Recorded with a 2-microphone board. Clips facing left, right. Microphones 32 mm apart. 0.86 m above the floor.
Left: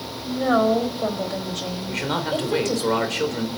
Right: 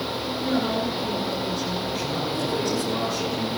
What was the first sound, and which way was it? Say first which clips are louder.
A woman speaking: left 7 dB; 80° left.